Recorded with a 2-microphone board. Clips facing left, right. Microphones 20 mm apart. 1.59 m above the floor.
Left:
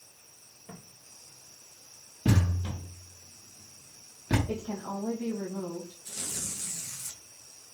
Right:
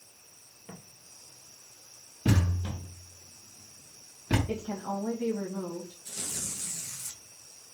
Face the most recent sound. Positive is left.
turn(degrees=-5)  # may be behind; listen again after turning